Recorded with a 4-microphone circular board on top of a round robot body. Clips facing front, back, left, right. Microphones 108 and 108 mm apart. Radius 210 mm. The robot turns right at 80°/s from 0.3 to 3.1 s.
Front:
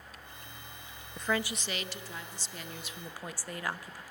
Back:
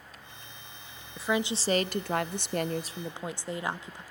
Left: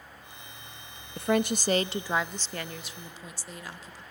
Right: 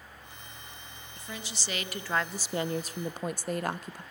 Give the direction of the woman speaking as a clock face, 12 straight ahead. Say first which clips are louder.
Back 4 dB, left 17 dB; 9 o'clock.